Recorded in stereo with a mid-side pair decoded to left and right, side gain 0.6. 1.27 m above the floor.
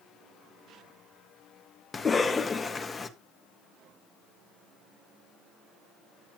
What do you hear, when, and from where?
1.9 s a cough: 25° left, 1.6 m